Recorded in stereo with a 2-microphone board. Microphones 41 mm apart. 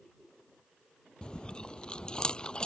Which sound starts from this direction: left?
Chewing, at 1.2 s.